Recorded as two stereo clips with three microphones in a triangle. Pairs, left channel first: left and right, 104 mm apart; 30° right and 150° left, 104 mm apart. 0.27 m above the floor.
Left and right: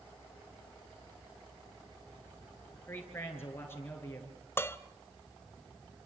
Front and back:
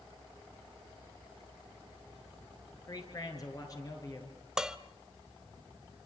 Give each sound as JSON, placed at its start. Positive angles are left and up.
{"t": 2.9, "sound": "a man speaking", "azimuth_deg": 25, "distance_m": 5.5}
{"t": 4.6, "sound": "dishes clattering", "azimuth_deg": 75, "distance_m": 0.8}